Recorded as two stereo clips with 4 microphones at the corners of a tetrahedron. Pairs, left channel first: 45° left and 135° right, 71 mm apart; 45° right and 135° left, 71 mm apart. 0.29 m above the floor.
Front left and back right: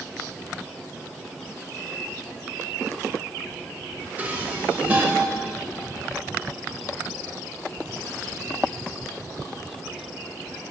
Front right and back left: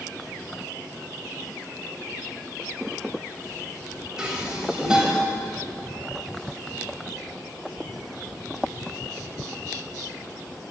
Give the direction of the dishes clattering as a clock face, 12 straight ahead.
5 o'clock.